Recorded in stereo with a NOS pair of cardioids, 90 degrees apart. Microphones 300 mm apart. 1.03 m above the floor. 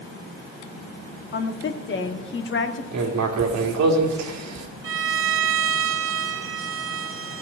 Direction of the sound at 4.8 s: 45° right.